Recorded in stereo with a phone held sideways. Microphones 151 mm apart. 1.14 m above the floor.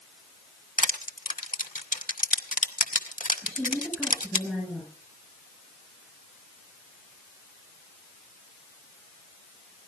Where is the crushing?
60° left (ahead or behind), 1.3 m.